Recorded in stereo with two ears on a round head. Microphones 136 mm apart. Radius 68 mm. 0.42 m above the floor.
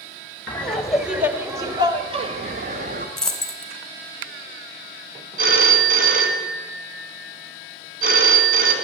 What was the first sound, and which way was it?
Laughter, 10° left (ahead or behind).